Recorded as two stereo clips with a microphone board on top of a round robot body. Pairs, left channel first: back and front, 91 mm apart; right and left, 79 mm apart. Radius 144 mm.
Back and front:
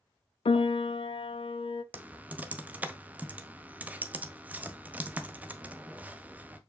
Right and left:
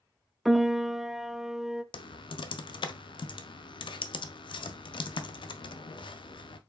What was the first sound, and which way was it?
A piano, straight behind.